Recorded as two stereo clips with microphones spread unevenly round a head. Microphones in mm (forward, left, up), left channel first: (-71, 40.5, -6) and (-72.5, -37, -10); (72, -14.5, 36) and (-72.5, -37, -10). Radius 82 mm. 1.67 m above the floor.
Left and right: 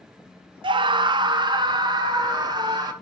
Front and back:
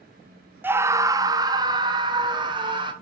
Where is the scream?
95° right, 0.6 m; by 2.9 s 115° right, 2 m.